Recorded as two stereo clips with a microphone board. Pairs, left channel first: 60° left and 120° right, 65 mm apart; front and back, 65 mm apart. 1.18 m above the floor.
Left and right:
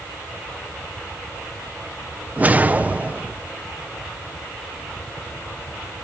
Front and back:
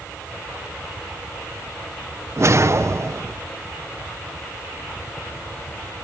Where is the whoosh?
175° right, 0.5 m.